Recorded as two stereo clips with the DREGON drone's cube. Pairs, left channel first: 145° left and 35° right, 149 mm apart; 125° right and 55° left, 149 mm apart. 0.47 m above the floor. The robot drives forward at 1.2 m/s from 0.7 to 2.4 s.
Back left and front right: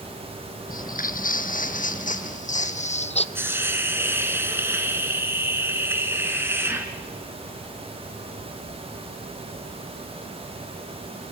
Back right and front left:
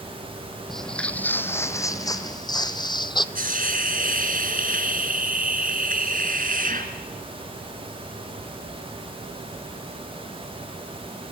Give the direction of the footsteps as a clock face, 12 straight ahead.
7 o'clock.